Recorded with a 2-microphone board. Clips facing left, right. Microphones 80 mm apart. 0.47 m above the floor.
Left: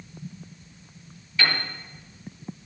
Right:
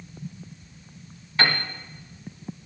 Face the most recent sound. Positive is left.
turn(degrees=-40)  # may be behind; listen again after turning